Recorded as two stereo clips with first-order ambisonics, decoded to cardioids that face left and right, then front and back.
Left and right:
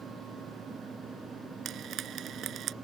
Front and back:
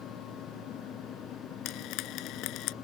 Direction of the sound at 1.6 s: 35° right.